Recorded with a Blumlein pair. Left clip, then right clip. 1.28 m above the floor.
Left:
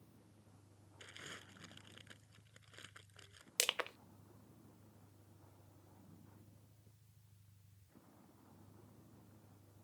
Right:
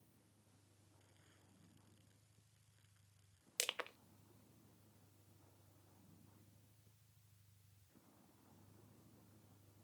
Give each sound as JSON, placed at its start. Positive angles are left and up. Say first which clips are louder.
{"t": 0.0, "sound": "a vehicle", "louder": "left 7 dB", "azimuth_deg": 65}
{"t": 1.0, "sound": "crumpling", "louder": "left 23 dB", "azimuth_deg": 50}
{"t": 3.6, "sound": "crushing", "louder": "left 5 dB", "azimuth_deg": 15}